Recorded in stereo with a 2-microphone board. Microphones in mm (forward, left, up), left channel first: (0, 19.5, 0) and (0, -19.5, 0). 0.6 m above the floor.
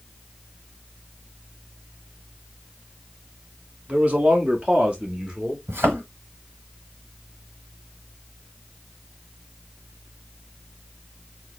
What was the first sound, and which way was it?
A man speaking, 35° right (ahead or behind).